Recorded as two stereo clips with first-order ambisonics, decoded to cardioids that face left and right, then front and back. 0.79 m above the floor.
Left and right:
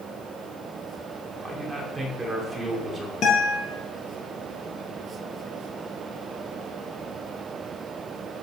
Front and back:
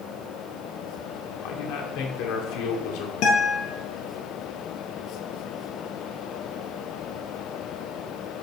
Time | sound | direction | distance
1.4 | a man speaking | 5° right | 2.5 m
3.2 | a guitar | 35° left | 3.5 m